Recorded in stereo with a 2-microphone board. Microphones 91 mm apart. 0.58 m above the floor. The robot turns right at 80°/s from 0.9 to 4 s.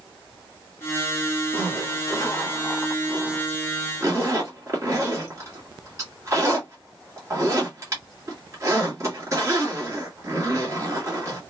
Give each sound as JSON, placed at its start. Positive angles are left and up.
{"t": 1.5, "sound": "a zipper", "side_deg": 25, "distance_m": 1.5}